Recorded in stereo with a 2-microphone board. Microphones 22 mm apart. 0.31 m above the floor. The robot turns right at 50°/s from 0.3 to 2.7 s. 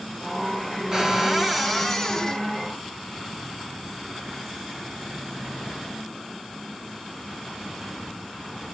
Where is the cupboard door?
25° right, 1.8 m; by 2.5 s 55° left, 1.8 m.